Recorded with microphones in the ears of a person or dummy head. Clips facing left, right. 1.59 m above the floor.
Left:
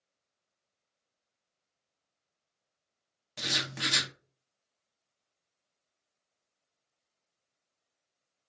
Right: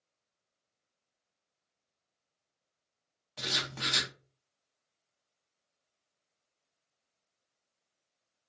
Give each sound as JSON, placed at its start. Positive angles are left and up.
{"t": 3.4, "sound": "writing", "side_deg": 15, "distance_m": 0.6}